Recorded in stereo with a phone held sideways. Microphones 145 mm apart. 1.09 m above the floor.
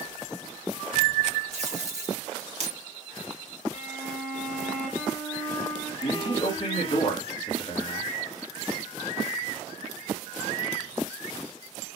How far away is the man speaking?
About 2.5 m.